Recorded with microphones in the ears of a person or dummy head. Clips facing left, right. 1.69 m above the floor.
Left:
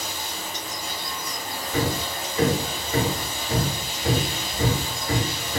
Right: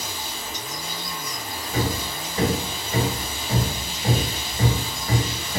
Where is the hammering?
35° right (ahead or behind), 2 m.